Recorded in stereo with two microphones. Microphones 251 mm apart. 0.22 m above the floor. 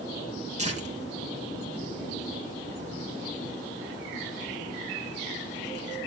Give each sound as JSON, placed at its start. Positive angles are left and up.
{"t": 0.6, "sound": "tearing paper", "side_deg": -30, "distance_m": 3.0}